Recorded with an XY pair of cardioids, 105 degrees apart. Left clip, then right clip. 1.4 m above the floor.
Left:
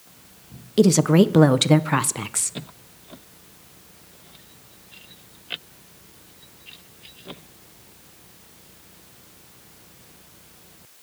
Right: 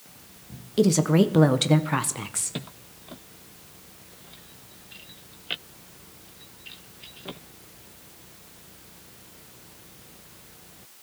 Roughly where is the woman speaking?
Ahead left.